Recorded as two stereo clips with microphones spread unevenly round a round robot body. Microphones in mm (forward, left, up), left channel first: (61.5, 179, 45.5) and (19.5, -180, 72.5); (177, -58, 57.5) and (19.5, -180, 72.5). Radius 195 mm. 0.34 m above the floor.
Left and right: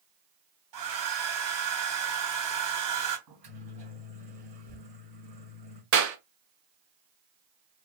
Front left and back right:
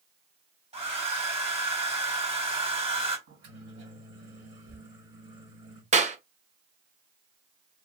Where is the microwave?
170° right, 2 m.